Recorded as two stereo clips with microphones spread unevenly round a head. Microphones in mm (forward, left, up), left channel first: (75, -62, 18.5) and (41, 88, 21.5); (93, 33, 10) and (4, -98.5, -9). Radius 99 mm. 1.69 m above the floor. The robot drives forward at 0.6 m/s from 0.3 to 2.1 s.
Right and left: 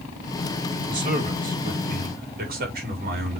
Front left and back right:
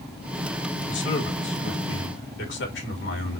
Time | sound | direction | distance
0.9 | a man speaking | 70° left | 4 m